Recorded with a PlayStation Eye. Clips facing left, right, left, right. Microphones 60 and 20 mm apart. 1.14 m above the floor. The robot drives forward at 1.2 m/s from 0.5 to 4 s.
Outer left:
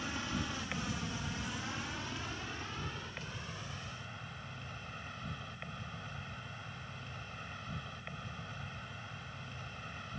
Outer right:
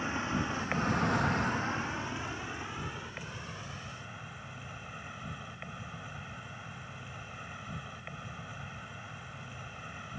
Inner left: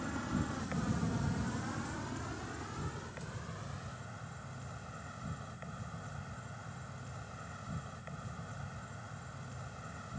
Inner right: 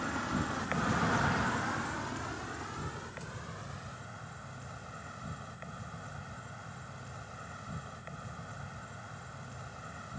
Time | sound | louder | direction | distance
0.0 | an insect | outer right 6 dB, inner right 4 dB | 30° right (ahead or behind) | ?